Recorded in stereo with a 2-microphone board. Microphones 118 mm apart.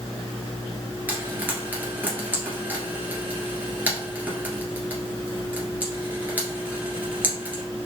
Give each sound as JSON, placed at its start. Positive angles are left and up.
{"t": 1.1, "sound": "frying", "side_deg": -15, "distance_m": 1.6}